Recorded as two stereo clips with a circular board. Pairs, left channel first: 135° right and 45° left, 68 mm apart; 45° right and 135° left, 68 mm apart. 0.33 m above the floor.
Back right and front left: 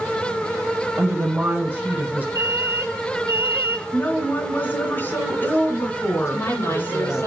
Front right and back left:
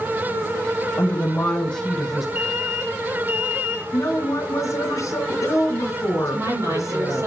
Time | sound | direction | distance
1.0 | a woman speaking | 5° right | 1.6 m
2.4 | an alarm | 90° left | 3 m
3.9 | a woman speaking | 80° right | 2.5 m
6.2 | a woman speaking | 170° left | 7 m